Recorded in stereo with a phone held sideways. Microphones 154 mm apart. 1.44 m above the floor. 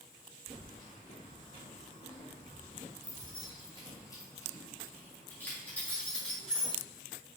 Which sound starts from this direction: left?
Keys jangling, at 0.5 s.